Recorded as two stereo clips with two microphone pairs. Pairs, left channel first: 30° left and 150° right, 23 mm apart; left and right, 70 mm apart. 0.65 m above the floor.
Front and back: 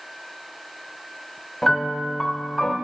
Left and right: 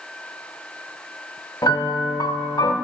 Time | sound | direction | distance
1.6 | a piano | 105° left | 0.7 m